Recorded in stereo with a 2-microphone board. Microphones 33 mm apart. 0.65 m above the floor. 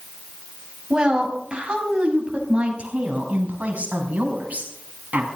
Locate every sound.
0.9 s a woman speaking: 25° right (ahead or behind), 4.5 m; by 5.3 s 45° right (ahead or behind), 6 m